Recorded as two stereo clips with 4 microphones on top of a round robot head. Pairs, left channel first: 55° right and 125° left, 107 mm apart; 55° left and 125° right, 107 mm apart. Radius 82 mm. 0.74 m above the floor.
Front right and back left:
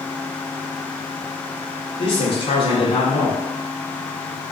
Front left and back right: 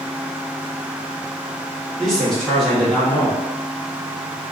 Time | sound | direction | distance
2.0 | a man speaking | 30° right | 0.9 m